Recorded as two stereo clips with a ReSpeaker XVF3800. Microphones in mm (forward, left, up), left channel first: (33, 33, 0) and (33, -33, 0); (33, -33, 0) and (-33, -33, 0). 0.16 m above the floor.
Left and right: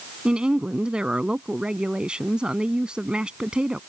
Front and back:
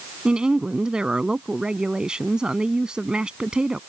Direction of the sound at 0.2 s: 130° right.